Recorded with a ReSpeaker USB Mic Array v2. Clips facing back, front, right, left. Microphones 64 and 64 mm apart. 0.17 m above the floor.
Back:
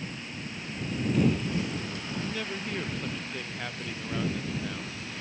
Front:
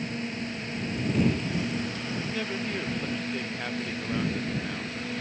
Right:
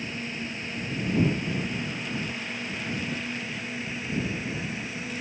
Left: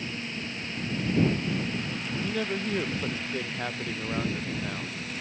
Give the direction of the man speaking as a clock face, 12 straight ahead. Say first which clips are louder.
Front 3 dB, left 4 dB; 9 o'clock.